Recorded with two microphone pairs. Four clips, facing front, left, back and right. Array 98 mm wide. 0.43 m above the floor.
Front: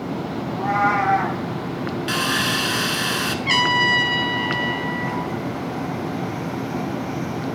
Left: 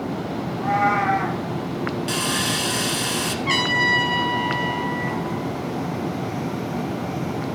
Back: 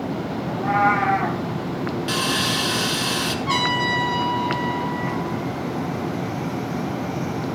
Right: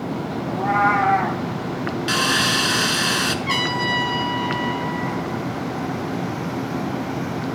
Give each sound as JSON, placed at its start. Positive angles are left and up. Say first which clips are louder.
{"t": 0.5, "sound": "a cat meowing", "louder": "right 2 dB, back 1 dB", "azimuth_deg": -45, "distance_m": 2.5}
{"t": 2.1, "sound": "sawing", "louder": "right 3 dB, front 3 dB", "azimuth_deg": -75, "distance_m": 0.8}
{"t": 3.5, "sound": "a trumpet", "louder": "left 1 dB, front 3 dB", "azimuth_deg": 15, "distance_m": 2.0}